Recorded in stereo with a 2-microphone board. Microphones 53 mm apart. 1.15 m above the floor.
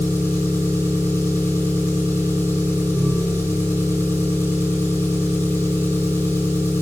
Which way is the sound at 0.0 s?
55° left (ahead or behind).